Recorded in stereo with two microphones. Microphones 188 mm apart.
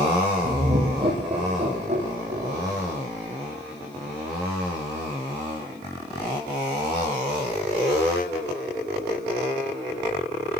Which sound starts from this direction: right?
Laughter, at 0.4 s.